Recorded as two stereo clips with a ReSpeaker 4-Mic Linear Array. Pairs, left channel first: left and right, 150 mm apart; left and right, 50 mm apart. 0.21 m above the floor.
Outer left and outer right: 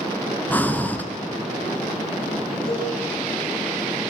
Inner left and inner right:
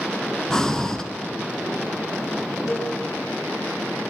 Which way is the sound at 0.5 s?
10° left (ahead or behind).